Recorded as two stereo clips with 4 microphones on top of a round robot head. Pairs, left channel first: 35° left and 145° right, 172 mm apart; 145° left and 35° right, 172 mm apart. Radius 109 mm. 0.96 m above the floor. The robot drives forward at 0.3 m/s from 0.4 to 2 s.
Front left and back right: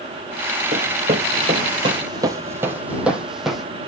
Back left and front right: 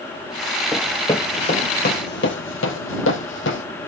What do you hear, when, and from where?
0.7 s running footsteps: 120° right, 1.0 m; by 3.6 s 125° left, 1.9 m